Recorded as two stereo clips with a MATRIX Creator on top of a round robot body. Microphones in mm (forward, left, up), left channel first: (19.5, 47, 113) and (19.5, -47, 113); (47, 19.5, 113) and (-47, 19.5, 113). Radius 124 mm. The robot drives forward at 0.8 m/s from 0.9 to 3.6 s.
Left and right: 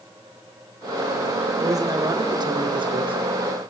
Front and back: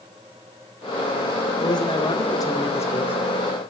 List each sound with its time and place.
1.6 s a man speaking: 40° right, 2.5 m; by 3.2 s 70° right, 1.6 m